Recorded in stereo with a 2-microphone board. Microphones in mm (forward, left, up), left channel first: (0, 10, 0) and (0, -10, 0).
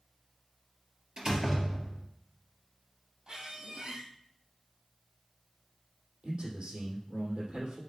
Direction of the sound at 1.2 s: 35° right (ahead or behind).